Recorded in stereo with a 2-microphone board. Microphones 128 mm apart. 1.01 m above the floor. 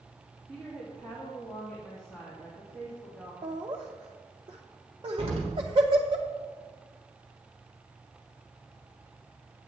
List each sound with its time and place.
0.5 s a woman speaking: 5° left (ahead or behind), 1.8 m
3.4 s laughter: 40° right (ahead or behind), 0.6 m
5.2 s an explosion: 45° right (ahead or behind), 1.3 m